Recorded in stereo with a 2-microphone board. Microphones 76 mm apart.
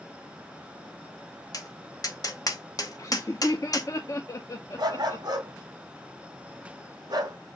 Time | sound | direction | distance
1.5 | tapping | 50° left (ahead or behind) | 0.8 m
3.0 | laughter | 45° left (ahead or behind) | 0.7 m
4.8 | a dog barking | 60° right (ahead or behind) | 1.9 m